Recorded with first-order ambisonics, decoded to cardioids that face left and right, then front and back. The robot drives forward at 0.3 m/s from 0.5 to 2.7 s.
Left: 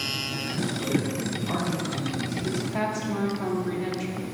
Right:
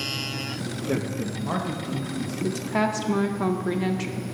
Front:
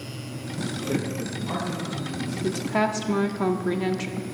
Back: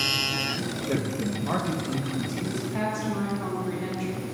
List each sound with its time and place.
0.9 s a man speaking: 100° right, 0.6 m; by 2.3 s 150° right, 0.8 m
2.4 s a woman speaking: 35° right, 0.6 m; by 4.2 s 40° right, 0.5 m